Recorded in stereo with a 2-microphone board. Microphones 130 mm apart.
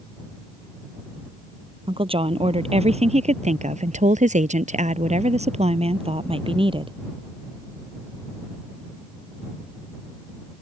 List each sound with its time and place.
1.9 s a woman speaking: 40° right (ahead or behind)